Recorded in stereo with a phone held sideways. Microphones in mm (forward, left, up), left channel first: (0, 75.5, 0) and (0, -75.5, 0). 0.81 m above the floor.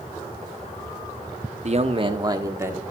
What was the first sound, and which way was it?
A man speaking, 50° right (ahead or behind).